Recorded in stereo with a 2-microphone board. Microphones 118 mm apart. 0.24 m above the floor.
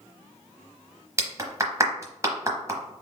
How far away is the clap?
About 1.0 m.